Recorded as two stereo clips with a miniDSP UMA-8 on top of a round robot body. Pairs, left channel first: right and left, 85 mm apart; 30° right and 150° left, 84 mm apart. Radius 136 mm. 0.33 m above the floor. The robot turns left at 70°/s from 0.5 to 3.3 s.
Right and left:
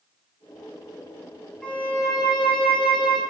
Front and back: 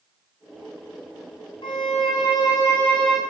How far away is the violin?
About 0.9 m.